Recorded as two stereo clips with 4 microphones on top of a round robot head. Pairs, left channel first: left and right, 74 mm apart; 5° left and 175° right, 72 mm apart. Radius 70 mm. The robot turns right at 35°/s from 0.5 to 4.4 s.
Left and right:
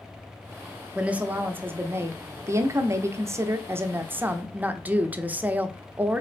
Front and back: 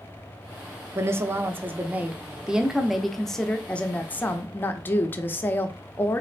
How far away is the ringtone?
No ringtone in this recording.